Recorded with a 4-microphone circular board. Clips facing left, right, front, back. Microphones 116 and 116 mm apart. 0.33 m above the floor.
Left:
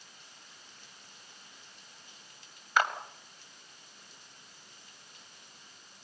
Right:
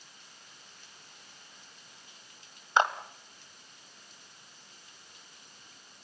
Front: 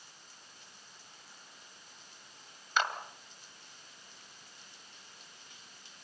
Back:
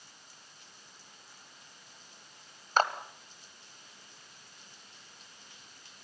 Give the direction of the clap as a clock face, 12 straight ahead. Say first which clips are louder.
Right 3 dB, back 5 dB; 5 o'clock.